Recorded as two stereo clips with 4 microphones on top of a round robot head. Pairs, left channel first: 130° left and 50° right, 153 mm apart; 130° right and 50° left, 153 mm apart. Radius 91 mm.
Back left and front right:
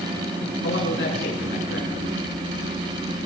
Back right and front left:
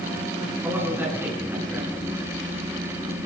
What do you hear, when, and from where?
0.6 s a man speaking: 125° left, 9.5 m